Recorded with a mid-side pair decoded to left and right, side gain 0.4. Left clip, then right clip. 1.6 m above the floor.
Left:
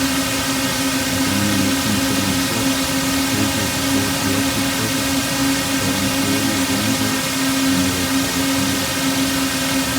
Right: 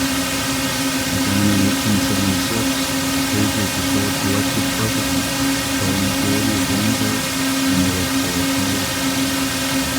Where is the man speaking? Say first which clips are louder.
Even; 30° right.